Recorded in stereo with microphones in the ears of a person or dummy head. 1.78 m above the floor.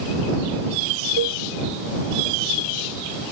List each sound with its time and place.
1.2 s a cowbell: 70° right (ahead or behind)